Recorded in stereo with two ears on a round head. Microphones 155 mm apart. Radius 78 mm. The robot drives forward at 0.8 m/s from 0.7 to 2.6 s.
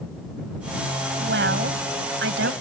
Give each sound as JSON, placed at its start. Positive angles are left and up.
{"t": 1.2, "sound": "a woman speaking", "side_deg": -75}